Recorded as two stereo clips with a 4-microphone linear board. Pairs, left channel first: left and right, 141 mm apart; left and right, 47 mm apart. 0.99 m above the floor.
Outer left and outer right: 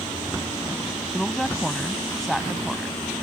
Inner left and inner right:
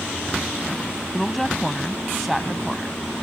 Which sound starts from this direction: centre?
A woman speaking, at 1.1 s.